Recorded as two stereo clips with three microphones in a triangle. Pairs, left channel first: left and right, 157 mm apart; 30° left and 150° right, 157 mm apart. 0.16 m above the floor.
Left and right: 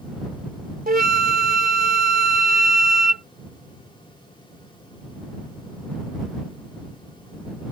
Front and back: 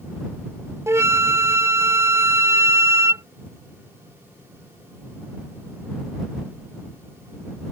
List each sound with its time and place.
0.9 s a flute: 75° right